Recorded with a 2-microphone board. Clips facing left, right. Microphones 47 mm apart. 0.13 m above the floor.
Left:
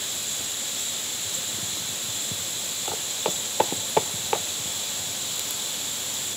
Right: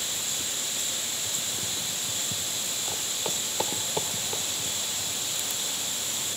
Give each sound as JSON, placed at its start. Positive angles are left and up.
{"t": 2.9, "sound": "footsteps", "side_deg": 25, "distance_m": 1.6}